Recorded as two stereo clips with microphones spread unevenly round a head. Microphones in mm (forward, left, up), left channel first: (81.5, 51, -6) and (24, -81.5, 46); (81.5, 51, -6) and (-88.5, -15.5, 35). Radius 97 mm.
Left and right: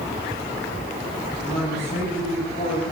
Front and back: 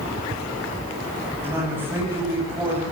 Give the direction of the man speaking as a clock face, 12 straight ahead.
8 o'clock.